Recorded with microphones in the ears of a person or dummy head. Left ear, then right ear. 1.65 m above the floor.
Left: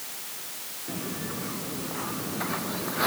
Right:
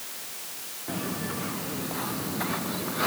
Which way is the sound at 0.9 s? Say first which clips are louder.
Right 3 dB; 30° right (ahead or behind).